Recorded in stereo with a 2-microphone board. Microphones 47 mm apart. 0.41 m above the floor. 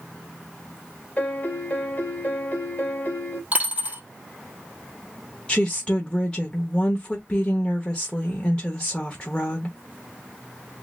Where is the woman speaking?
25° left (ahead or behind), 0.9 m.